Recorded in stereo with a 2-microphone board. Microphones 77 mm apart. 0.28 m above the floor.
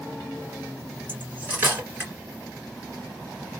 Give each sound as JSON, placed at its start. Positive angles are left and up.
{"t": 1.1, "sound": "cutlery clinking", "side_deg": -25, "distance_m": 1.9}